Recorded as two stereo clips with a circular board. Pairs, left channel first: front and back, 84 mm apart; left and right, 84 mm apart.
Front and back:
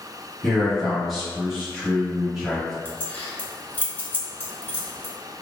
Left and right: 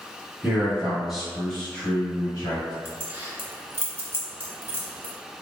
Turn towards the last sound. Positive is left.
turn(degrees=-50)